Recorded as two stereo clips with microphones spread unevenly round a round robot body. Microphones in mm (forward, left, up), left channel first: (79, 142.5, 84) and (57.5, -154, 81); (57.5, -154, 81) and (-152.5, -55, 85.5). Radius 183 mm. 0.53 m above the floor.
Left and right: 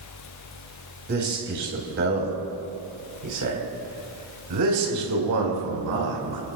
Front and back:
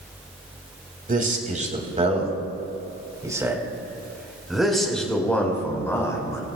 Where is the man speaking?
155° right, 4 m; by 6.5 s 100° right, 4.5 m.